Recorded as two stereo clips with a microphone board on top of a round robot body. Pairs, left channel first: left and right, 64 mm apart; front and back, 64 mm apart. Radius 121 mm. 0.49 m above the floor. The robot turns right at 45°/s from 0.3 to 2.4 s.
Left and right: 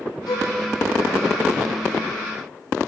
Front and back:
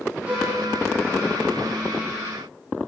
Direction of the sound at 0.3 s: 110° left.